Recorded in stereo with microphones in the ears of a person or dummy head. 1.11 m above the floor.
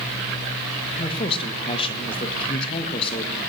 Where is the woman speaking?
25° left (ahead or behind), 1.3 m.